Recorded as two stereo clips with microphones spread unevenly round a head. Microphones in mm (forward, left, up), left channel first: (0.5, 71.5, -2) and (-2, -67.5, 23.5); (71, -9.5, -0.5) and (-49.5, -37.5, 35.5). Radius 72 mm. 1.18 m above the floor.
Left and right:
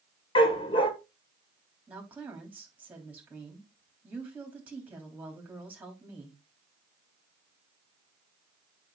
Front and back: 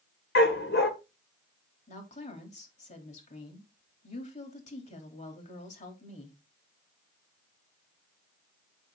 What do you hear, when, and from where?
0.3 s a dog barking: 30° left, 1.5 m
1.9 s a woman speaking: 10° right, 3 m